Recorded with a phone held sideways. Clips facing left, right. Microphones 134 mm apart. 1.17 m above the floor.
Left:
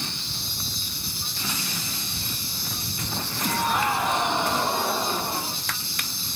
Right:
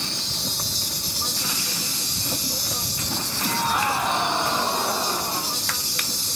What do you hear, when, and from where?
0.0 s an insect: 80° right